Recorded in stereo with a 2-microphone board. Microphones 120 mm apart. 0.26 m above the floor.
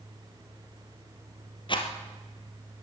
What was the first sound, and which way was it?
A rattle, 45° left (ahead or behind).